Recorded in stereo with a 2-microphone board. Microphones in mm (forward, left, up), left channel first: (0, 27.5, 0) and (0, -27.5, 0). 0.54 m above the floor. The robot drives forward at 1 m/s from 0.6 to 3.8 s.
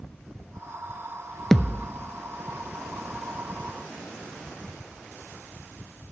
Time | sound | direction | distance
1.5 | a thud | 5° left (ahead or behind) | 0.5 m